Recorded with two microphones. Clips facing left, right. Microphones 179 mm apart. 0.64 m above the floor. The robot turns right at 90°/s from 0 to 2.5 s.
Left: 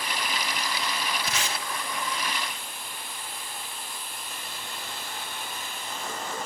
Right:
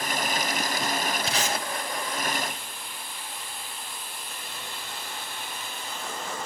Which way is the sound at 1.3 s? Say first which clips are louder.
Right 4 dB; 25° right (ahead or behind).